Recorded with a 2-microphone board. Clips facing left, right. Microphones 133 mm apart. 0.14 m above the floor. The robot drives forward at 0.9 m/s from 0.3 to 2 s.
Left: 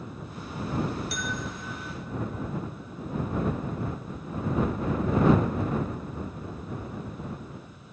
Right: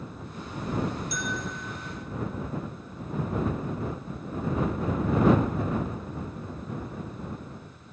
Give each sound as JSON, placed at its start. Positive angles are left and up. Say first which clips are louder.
{"t": 1.1, "sound": "a bell", "louder": "right 1 dB", "side_deg": 70, "distance_m": 3.0}